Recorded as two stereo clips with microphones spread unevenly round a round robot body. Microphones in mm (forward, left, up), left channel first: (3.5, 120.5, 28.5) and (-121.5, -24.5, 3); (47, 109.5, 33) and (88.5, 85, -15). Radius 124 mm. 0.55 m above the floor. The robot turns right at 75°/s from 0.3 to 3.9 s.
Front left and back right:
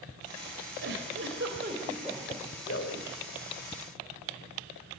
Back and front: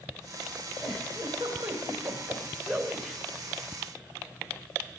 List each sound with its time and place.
0.8 s a giggle: 145° right, 3 m; by 3.2 s 30° left, 3 m